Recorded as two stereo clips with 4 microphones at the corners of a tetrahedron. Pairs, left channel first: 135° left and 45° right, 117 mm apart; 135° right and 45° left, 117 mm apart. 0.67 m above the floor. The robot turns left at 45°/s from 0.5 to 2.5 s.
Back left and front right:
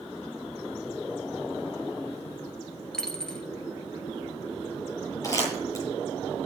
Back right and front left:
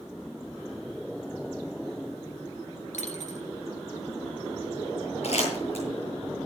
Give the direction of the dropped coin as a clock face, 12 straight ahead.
5 o'clock.